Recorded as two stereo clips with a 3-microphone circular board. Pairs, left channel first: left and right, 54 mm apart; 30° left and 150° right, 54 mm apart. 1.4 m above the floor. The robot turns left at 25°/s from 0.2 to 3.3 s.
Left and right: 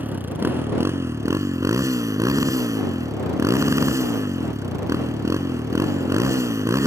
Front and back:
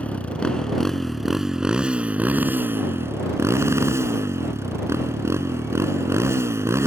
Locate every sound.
0.0 s a motorcycle: 35° right; by 6.9 s 115° right